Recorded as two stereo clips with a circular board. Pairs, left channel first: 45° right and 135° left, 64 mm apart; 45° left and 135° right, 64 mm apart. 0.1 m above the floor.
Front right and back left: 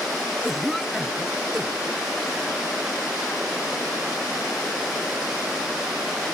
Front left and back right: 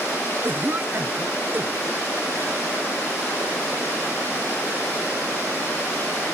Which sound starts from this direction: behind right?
A cough, at 0.4 s.